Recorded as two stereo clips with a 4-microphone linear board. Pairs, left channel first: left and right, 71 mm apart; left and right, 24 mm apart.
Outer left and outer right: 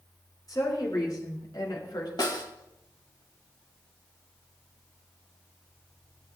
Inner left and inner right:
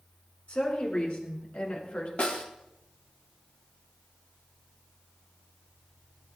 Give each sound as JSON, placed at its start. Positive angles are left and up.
{"t": 0.5, "sound": "a woman speaking", "side_deg": 65, "distance_m": 5.0}
{"t": 2.2, "sound": "a snare drum", "side_deg": 75, "distance_m": 2.0}